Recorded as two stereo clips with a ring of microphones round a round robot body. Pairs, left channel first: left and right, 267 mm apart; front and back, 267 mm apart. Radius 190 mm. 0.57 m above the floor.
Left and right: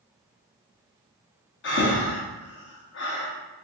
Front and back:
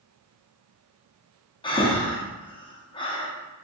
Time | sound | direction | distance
1.6 | breathing | 65° left | 0.7 m